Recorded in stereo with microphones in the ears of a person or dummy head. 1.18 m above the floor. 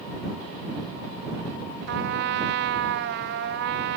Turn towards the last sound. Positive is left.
turn(degrees=-60)  # may be behind; listen again after turning